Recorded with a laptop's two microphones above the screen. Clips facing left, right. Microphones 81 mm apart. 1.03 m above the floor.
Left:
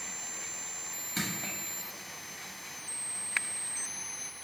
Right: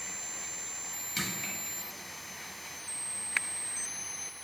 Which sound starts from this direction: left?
Crushing, at 1.2 s.